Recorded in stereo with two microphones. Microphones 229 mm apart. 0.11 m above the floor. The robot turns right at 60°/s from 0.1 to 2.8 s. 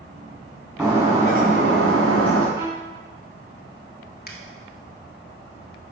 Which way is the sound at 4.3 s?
45° left (ahead or behind).